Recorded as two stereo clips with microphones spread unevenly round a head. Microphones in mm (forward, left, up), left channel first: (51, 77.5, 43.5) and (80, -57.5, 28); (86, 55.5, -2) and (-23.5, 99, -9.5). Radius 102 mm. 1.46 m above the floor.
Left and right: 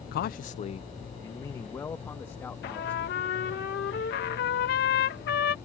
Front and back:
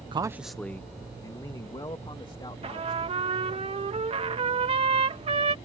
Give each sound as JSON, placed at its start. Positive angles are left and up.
{"t": 0.1, "sound": "a man speaking", "azimuth_deg": 110}
{"t": 2.6, "sound": "a trumpet", "azimuth_deg": 125}